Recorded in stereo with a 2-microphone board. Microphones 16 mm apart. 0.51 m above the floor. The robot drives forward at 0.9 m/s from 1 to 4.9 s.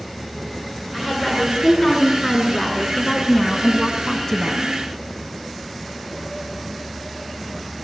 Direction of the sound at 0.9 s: 20° left (ahead or behind).